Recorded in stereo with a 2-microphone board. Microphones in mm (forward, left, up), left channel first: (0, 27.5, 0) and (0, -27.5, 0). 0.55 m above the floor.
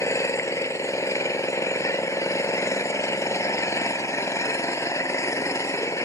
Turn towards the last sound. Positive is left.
turn(degrees=70)  # may be behind; listen again after turning